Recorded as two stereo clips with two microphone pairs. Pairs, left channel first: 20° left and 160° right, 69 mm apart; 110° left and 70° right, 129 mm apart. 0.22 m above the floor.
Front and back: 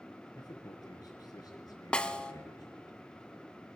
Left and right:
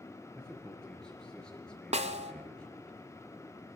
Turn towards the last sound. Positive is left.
turn(degrees=-55)